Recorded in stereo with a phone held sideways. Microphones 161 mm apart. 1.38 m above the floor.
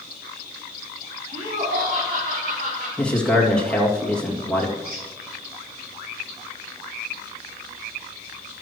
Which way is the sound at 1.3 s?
50° right (ahead or behind).